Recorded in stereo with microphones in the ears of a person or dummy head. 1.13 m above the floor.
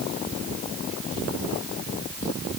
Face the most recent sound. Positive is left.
No sound to turn to.